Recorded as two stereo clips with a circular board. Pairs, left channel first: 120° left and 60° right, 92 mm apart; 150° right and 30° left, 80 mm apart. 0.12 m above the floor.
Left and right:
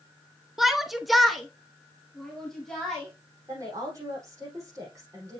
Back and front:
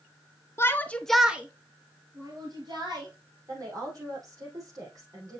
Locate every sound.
0.6 s a shout: 145° right, 1.2 m; by 3.1 s 35° left, 2.5 m
3.5 s a woman speaking: 10° right, 5 m